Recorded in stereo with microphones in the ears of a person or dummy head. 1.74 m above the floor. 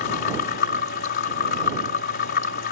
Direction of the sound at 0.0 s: 55° left (ahead or behind).